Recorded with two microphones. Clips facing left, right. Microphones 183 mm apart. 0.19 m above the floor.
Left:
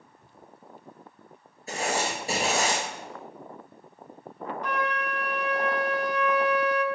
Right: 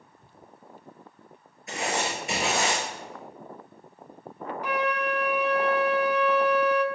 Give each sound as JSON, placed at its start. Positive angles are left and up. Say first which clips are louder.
{"t": 1.7, "sound": "writing", "louder": "left 1 dB", "side_deg": 30, "distance_m": 2.5}
{"t": 4.6, "sound": "a flute", "louder": "right 4 dB", "side_deg": -10, "distance_m": 0.6}